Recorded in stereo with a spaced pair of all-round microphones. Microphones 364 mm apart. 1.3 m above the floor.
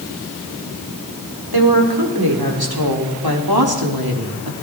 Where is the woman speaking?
80° right, 5 m.